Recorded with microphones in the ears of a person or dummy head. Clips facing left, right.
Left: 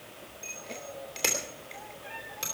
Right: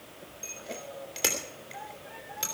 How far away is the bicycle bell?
About 3 m.